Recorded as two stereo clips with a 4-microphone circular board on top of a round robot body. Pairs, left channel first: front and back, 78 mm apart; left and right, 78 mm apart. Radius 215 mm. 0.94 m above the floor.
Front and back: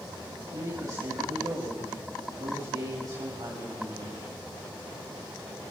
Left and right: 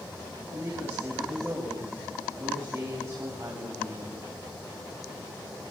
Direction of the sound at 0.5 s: 145° right.